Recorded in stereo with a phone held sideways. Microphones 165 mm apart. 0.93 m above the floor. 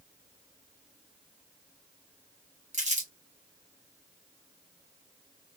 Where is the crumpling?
45° right (ahead or behind), 1.1 m.